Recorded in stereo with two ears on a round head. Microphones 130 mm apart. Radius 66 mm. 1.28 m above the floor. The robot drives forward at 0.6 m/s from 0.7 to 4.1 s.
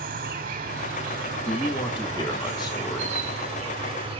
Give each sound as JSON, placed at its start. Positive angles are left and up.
{"t": 0.0, "sound": "an insect", "side_deg": -60, "distance_m": 1.7}
{"t": 1.4, "sound": "a man speaking", "side_deg": 40, "distance_m": 1.2}